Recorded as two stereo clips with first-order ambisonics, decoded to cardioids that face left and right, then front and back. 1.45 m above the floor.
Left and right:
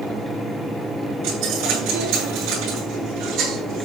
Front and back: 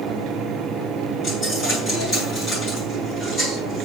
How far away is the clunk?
I don't hear a clunk.